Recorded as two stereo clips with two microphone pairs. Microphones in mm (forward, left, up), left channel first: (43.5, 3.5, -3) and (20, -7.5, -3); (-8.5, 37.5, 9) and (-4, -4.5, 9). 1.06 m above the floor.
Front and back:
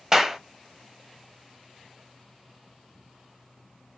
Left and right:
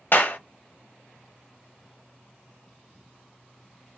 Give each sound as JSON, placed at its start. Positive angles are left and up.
{"t": 0.1, "sound": "a clap", "azimuth_deg": 130, "distance_m": 1.0}